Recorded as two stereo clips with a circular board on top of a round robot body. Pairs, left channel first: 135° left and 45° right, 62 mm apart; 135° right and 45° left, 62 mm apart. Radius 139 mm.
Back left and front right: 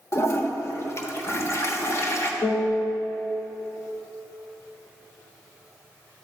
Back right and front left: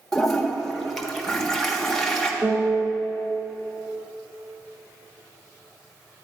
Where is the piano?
110° left, 3 m.